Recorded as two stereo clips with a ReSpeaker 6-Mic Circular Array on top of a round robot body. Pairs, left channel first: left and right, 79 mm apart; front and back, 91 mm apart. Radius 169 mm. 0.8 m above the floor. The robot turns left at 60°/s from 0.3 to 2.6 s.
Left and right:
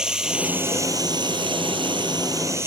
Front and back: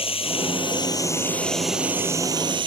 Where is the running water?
10° right; by 2.7 s 145° right.